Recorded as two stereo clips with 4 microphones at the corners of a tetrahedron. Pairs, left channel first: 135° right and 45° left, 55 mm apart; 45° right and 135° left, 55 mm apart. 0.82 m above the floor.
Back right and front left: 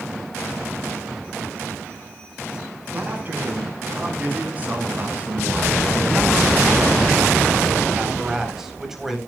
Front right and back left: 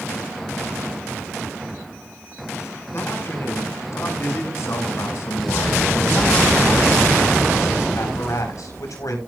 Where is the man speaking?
10° right, 6.5 m; by 9.2 s 40° right, 4 m.